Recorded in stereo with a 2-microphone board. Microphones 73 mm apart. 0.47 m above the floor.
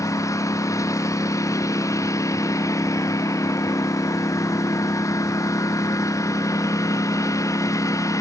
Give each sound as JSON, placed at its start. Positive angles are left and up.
{"t": 0.0, "sound": "a lawn mower", "side_deg": 50}